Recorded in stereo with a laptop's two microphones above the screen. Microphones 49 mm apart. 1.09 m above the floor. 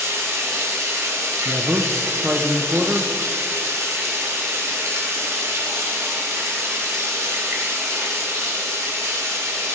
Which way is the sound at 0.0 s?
85° right.